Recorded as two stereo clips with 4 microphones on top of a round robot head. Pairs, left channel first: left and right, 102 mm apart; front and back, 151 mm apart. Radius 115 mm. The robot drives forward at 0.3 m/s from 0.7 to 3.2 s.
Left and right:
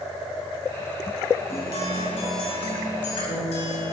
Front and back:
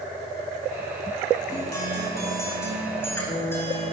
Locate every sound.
1.5 s a guitar: 70° left, 5.5 m; by 3.9 s 75° left, 5.5 m